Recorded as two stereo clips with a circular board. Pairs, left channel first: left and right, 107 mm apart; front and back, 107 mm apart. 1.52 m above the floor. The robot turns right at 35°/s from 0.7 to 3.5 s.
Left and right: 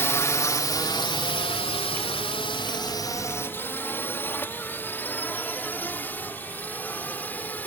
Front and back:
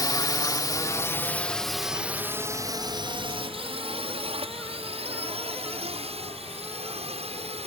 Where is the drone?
35° left; by 7.7 s 165° left.